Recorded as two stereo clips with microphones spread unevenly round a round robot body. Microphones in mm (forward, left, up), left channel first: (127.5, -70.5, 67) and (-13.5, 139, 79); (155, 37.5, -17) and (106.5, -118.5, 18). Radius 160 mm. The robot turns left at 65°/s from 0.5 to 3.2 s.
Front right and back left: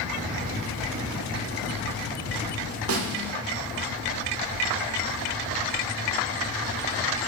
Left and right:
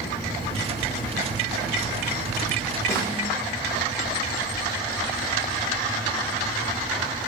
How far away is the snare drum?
About 1.0 m.